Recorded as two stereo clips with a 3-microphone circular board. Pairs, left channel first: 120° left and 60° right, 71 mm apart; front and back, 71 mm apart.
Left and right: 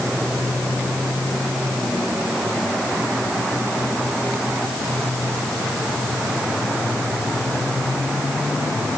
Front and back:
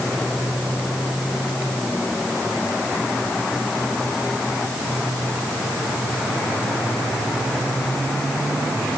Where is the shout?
No shout in this recording.